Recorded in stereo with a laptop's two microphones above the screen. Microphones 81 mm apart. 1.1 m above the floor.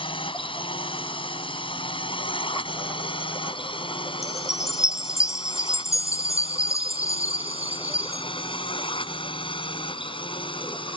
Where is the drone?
85° left; by 11.0 s 80° left.